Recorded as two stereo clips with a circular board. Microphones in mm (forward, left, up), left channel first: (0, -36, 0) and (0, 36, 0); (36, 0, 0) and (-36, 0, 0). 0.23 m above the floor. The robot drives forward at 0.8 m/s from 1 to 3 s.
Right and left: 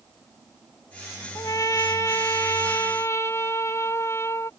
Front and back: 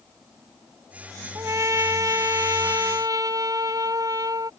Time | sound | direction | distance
1.4 | a trumpet | 130° right | ?